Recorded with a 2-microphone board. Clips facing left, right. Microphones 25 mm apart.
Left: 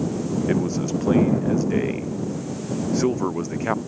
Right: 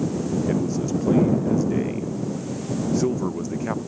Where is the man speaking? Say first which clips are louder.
Left 1 dB; 30° left (ahead or behind).